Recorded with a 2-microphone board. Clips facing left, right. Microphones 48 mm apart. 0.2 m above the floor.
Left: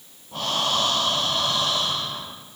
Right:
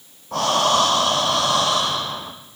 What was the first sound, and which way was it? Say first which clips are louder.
Breathing: right 7 dB; 85° right.